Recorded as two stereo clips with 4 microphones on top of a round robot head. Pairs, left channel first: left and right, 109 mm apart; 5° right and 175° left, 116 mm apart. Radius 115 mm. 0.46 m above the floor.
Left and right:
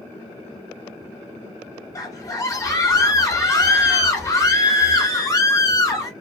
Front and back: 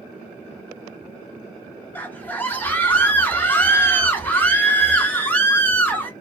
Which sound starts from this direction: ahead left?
A scream, at 1.9 s.